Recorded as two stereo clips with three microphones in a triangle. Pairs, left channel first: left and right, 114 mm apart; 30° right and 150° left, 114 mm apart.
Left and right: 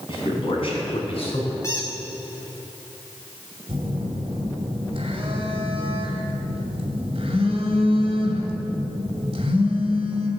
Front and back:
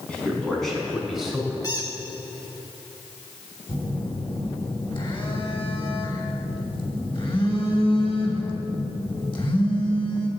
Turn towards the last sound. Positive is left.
turn(degrees=-60)